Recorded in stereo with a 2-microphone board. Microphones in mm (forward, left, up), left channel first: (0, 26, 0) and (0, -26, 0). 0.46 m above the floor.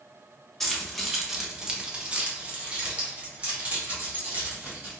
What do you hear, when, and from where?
0.6 s keys jangling: 5° left (ahead or behind), 0.9 m; by 5.0 s 30° right (ahead or behind), 2.5 m